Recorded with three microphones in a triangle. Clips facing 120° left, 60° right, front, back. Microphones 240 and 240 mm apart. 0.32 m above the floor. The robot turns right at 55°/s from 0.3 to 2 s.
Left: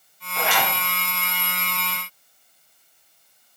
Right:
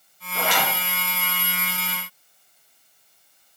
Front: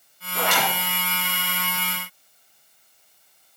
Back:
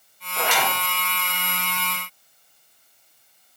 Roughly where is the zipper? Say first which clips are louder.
Even, even; ahead.